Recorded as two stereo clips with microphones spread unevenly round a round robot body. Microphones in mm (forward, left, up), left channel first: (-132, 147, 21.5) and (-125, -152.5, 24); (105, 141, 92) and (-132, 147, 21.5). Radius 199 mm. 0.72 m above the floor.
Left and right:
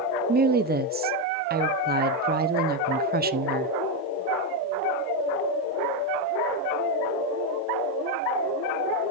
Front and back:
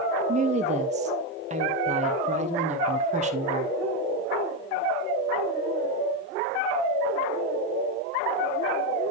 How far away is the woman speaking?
About 0.7 m.